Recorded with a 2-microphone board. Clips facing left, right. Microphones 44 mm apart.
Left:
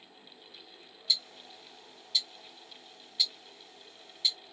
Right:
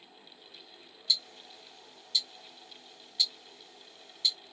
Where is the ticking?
10° left (ahead or behind), 1.8 m.